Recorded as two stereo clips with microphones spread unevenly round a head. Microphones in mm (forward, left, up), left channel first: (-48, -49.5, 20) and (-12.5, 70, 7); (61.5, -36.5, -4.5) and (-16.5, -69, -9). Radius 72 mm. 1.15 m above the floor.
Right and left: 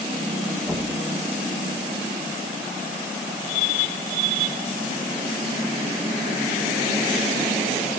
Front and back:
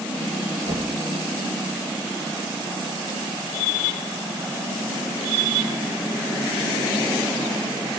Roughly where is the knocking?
Behind left.